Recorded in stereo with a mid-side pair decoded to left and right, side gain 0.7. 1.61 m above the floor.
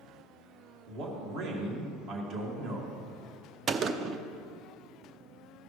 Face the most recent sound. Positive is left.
turn(degrees=-40)